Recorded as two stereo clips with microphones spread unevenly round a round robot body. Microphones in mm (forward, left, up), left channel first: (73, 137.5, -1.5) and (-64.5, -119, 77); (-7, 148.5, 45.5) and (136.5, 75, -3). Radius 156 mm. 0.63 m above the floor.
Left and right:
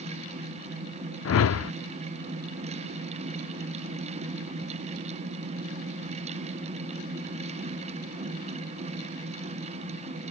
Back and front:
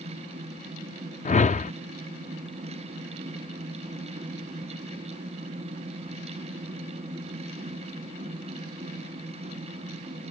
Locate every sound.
1.2 s a whoosh: 100° left